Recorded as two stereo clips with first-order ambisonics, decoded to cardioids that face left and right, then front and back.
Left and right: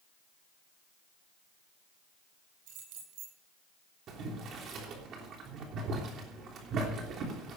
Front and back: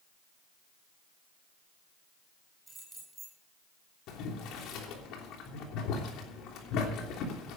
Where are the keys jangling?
100° right, 8 m.